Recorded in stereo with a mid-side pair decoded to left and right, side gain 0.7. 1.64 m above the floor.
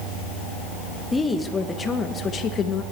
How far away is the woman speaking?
About 2 m.